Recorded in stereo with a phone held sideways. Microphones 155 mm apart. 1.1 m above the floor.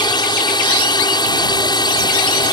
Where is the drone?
25° left (ahead or behind).